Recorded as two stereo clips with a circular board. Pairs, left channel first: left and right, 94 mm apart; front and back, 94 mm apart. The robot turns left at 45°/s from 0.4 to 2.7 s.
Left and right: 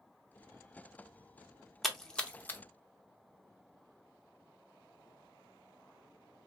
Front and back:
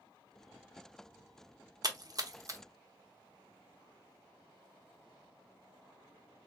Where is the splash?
Straight behind, 0.6 m; by 2.6 s 145° left, 0.6 m.